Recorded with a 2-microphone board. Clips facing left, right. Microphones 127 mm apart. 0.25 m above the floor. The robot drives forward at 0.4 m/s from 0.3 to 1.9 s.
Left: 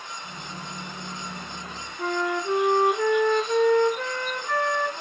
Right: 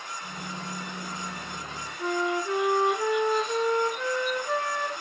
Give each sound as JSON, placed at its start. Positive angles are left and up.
{"t": 2.0, "sound": "a flute", "side_deg": 65, "distance_m": 2.5}